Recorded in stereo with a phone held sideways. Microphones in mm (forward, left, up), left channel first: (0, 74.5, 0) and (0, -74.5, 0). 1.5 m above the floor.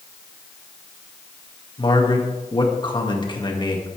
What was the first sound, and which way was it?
A man speaking, 30° left (ahead or behind).